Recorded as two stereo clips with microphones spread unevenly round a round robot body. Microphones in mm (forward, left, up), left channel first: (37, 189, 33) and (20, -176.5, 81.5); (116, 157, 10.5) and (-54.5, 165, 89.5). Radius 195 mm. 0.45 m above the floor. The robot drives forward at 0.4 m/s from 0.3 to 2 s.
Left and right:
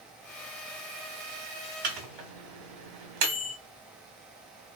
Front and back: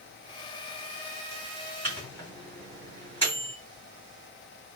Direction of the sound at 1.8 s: 90° right.